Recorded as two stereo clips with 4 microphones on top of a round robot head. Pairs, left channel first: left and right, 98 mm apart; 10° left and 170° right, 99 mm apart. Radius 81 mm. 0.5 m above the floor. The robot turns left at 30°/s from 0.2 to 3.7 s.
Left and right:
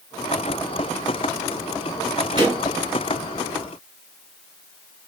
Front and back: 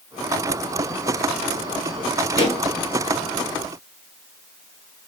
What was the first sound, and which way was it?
A pop, 45° right.